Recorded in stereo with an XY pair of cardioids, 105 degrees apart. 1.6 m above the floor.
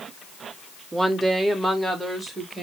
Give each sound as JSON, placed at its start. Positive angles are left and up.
{"t": 0.9, "sound": "a woman speaking", "azimuth_deg": -20, "distance_m": 1.5}